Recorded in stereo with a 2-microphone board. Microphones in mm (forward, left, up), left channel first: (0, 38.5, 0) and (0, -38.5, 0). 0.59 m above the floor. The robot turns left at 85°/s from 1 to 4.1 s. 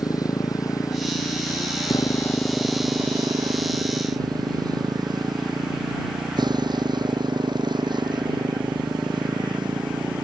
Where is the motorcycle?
55° left (ahead or behind); by 10.2 s 85° right.